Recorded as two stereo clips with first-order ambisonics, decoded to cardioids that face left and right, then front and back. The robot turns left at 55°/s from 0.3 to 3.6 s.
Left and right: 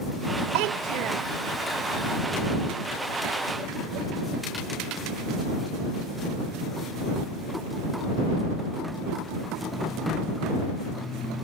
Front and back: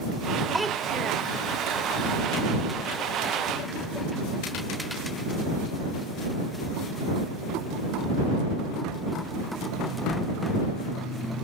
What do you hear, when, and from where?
0.5 s a child speaking: 95° right; by 1.3 s 135° right